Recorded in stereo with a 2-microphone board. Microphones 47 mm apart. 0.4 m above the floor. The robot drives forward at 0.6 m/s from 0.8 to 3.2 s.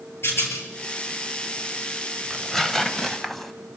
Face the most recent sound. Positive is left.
turn(degrees=5)  # may be behind; listen again after turning